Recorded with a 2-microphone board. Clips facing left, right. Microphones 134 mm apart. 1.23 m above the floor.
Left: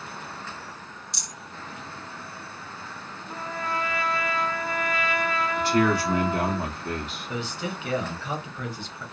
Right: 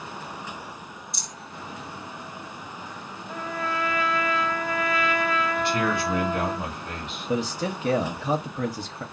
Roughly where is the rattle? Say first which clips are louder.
Right 2 dB; left.